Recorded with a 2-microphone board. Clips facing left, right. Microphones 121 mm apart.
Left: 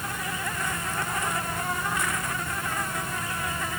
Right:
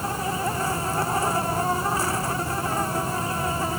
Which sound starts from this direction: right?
An insect, at 0.0 s.